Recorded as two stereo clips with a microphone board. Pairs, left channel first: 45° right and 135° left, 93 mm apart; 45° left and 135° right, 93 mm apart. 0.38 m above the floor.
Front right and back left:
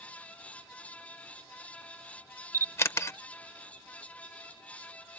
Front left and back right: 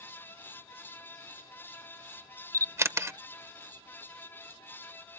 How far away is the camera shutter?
About 0.5 m.